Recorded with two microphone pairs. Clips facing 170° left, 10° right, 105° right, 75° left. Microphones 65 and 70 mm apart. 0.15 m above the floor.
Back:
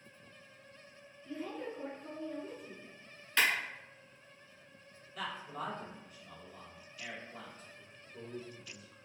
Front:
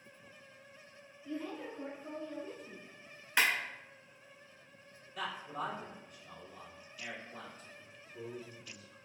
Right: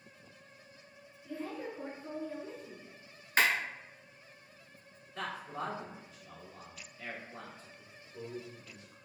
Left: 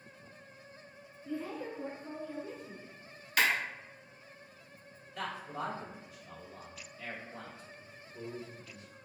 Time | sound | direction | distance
1.2 | a woman speaking | 90° right | 1.8 m
3.4 | a clap | 70° right | 1.1 m
5.2 | a man speaking | 90° right | 1.8 m
7.8 | a man speaking | 140° right | 1.2 m